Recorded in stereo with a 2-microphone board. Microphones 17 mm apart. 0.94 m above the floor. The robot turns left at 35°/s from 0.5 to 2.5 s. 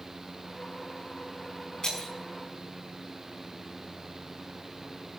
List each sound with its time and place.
1.8 s breaking glass: 50° left (ahead or behind), 5.5 m; by 2.1 s 60° left (ahead or behind), 5.5 m